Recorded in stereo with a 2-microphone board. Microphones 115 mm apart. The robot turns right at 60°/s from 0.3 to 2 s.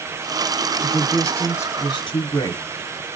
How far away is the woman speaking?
About 1.7 m.